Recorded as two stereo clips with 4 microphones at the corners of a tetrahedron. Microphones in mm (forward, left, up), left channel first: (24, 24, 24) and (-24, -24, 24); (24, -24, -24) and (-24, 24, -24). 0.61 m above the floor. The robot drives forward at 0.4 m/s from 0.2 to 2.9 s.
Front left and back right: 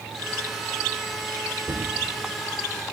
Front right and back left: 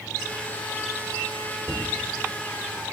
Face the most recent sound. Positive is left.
turn(degrees=-150)